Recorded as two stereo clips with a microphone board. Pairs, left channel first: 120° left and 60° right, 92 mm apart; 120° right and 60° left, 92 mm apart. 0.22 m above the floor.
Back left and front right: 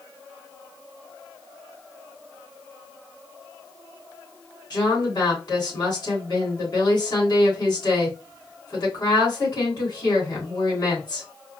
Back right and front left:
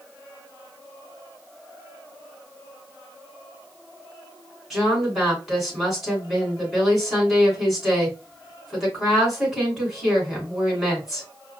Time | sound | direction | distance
4.7 | a woman speaking | 145° left | 2.5 m